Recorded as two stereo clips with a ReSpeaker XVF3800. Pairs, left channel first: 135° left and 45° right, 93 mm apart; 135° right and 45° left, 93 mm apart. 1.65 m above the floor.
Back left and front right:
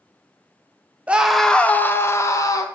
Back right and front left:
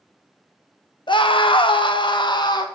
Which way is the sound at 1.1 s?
115° right.